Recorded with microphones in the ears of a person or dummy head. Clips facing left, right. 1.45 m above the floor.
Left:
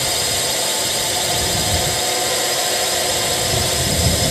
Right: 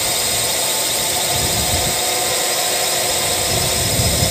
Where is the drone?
5° left (ahead or behind).